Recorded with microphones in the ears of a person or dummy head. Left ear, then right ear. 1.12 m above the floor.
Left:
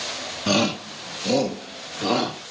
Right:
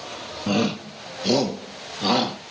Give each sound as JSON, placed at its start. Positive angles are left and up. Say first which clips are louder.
{"t": 0.5, "sound": "a shout", "louder": "left 3 dB", "side_deg": 25, "distance_m": 0.5}